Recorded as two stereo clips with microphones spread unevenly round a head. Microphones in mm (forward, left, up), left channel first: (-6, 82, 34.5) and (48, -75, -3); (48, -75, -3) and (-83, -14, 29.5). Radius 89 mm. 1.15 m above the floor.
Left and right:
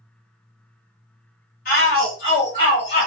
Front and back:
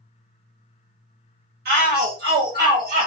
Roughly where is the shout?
Behind left.